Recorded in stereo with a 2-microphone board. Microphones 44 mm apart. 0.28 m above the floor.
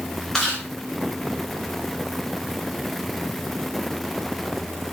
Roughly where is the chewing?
Centre.